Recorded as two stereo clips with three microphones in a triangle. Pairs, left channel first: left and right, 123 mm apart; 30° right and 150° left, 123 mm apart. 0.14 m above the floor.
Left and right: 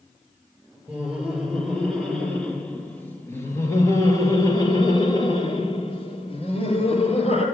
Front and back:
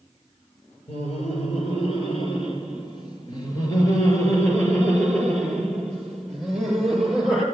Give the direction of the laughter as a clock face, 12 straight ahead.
12 o'clock.